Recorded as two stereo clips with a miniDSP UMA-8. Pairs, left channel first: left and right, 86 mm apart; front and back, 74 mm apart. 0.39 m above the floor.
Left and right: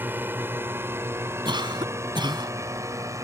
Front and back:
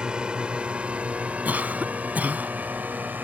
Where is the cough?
110° right.